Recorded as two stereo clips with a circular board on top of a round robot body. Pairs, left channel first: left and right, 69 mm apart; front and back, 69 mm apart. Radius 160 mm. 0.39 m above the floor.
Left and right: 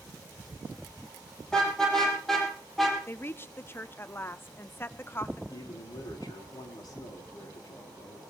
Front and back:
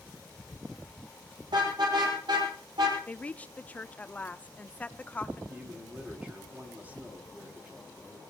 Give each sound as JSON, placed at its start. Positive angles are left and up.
{"t": 1.5, "sound": "a car horn", "azimuth_deg": 170, "distance_m": 8.5}
{"t": 3.1, "sound": "a woman speaking", "azimuth_deg": 60, "distance_m": 1.1}
{"t": 5.5, "sound": "a man speaking", "azimuth_deg": 110, "distance_m": 5.5}